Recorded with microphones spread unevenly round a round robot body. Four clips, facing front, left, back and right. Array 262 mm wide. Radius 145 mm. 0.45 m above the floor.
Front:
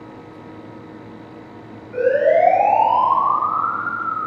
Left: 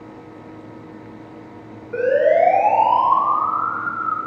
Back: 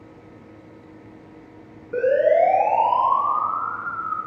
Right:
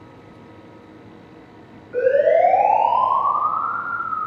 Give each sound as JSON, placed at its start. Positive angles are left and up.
{"t": 1.9, "sound": "a siren", "azimuth_deg": 145, "distance_m": 5.0}